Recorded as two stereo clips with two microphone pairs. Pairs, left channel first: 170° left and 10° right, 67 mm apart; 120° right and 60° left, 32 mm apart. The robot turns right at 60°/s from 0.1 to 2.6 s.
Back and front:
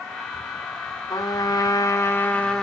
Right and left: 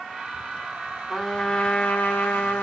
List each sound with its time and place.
1.1 s a trumpet: 160° left, 2 m; by 2.6 s 110° right, 2 m